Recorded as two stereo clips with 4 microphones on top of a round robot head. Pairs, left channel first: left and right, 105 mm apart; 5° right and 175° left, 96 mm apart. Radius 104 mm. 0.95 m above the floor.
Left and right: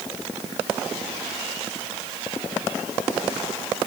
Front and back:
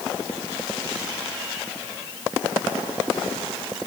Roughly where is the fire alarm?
No fire alarm in this recording.